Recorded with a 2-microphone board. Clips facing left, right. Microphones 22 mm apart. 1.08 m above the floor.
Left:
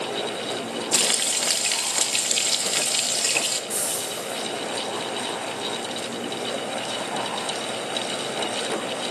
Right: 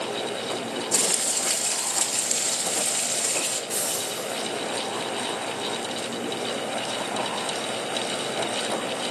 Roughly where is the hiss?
Right.